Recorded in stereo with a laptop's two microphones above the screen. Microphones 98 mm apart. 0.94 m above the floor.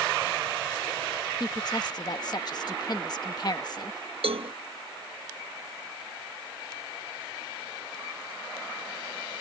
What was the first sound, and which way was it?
A woman speaking, 45° left (ahead or behind).